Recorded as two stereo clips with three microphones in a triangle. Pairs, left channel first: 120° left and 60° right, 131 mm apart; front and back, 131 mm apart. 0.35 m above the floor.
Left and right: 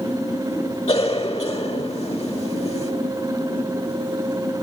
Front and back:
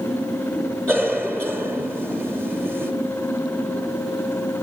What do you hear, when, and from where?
0.9 s a cough: 80° left, 2 m